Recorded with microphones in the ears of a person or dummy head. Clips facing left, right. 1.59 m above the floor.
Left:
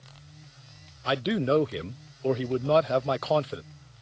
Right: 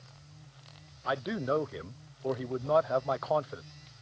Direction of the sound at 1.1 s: 35° left (ahead or behind).